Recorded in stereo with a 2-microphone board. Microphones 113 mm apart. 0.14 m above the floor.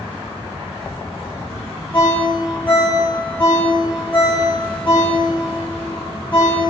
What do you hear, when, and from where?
1.9 s a ringtone: 15° left (ahead or behind), 6.5 m